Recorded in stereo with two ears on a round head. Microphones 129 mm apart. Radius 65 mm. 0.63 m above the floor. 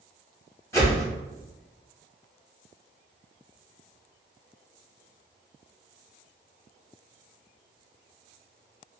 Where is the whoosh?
20° left (ahead or behind), 1.8 m.